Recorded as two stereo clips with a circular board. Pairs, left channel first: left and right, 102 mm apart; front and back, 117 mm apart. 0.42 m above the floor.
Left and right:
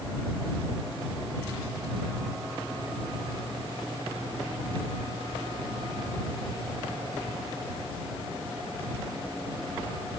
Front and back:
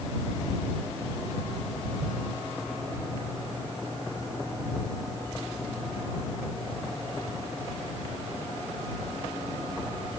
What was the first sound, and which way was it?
Only background noise.